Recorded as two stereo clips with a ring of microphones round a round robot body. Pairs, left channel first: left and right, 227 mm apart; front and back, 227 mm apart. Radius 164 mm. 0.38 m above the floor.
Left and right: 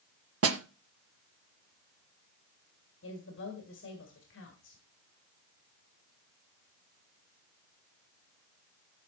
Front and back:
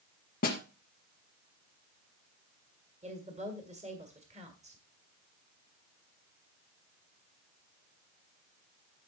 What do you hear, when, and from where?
0.4 s a snare drum: 65° right, 1.4 m
3.0 s a woman speaking: 120° left, 2.5 m